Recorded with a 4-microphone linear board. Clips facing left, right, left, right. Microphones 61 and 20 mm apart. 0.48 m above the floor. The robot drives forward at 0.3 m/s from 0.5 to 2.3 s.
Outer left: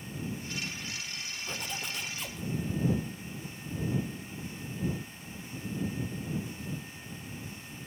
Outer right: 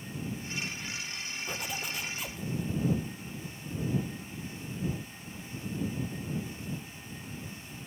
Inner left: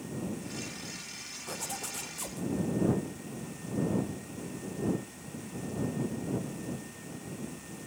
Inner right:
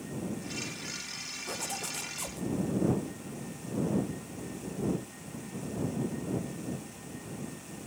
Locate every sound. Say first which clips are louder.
1.5 s a zipper: outer right 1 dB, inner right 1 dB; 5° right (ahead or behind), 0.6 m